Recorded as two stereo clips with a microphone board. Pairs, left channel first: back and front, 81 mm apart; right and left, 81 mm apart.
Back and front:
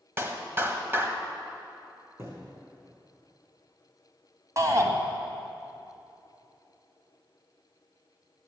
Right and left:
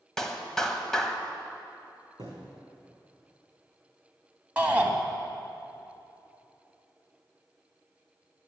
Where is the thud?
55° left, 4 m.